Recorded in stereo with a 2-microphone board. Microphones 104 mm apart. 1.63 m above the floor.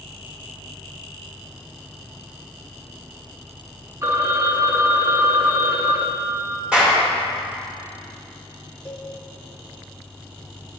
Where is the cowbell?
15° left (ahead or behind), 1.0 m.